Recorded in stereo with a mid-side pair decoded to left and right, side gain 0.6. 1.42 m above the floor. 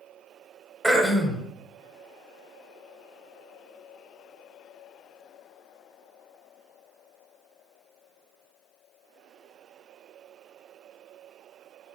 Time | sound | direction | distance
0.8 | throat clearing | 10° right | 0.7 m